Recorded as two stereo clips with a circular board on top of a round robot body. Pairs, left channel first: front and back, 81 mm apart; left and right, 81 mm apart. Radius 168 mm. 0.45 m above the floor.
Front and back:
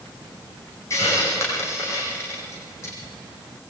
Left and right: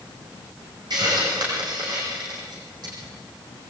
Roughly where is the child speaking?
I don't hear a child speaking.